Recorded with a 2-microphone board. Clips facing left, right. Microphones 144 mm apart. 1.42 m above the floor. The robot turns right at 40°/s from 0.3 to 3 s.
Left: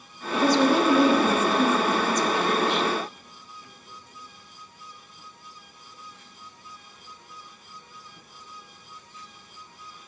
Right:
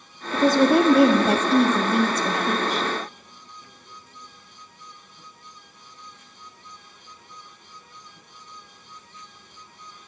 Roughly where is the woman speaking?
Behind right.